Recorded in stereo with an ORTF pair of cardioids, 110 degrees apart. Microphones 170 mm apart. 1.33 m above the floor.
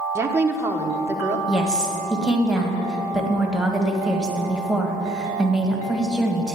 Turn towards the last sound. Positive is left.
turn(degrees=-5)